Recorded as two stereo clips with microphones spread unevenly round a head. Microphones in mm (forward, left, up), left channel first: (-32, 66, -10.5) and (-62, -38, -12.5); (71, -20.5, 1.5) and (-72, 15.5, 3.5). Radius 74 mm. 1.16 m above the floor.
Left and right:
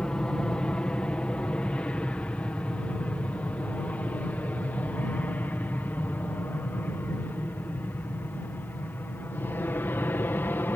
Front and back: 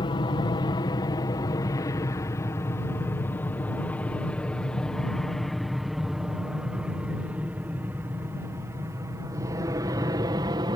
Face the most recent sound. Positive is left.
turn(degrees=130)